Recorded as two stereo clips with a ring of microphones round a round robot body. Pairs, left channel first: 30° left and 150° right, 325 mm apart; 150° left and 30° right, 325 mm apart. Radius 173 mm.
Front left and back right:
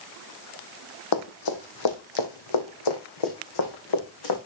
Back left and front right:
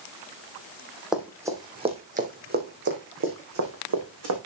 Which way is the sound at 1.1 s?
60° left.